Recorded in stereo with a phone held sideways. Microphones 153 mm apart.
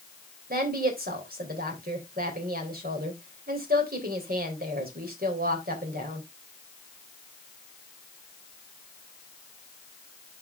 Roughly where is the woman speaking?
Right.